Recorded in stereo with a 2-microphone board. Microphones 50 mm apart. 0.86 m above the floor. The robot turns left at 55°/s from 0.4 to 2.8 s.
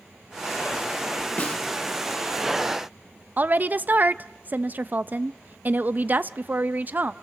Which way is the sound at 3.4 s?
40° right (ahead or behind).